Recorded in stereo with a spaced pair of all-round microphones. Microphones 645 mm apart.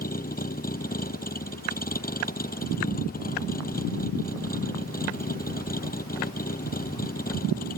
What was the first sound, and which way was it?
A vehicle, 15° left (ahead or behind).